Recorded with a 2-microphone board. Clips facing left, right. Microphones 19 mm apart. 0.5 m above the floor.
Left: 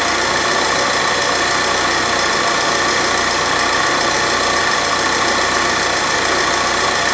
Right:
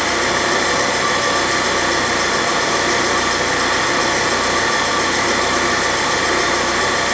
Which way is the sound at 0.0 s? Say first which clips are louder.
Left 1 dB; 45° left (ahead or behind).